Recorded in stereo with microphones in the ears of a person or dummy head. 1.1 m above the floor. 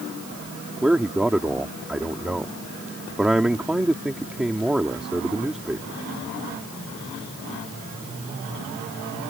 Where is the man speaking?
Centre (ahead or behind).